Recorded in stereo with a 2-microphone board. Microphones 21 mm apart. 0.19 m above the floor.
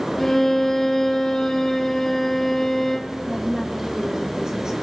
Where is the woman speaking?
30° right (ahead or behind), 6 m.